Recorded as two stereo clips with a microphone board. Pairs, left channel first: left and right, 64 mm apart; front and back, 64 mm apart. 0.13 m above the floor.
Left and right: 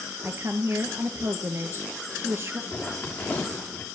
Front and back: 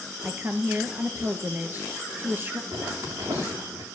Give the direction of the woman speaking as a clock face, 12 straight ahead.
4 o'clock.